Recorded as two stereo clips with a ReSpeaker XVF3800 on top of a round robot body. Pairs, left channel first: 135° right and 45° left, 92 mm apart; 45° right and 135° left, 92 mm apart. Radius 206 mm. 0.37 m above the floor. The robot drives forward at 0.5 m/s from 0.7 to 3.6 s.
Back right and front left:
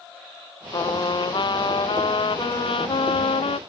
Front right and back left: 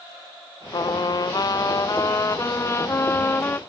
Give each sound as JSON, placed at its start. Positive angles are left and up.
{"t": 0.7, "sound": "a trumpet", "azimuth_deg": -90}